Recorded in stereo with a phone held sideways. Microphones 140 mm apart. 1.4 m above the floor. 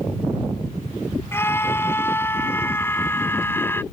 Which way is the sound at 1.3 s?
15° left (ahead or behind).